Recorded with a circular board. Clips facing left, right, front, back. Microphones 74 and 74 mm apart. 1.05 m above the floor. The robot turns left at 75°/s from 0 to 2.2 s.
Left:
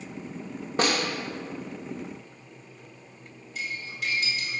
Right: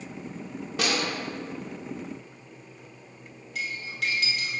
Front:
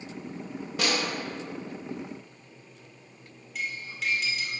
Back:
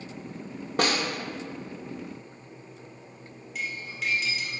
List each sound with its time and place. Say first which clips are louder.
0.8 s a snare drum: left 3 dB, back 3 dB; 140° left, 0.7 m; by 1.1 s 120° left, 0.7 m
3.5 s cutlery clinking: right 2 dB, even; 90° right, 2.0 m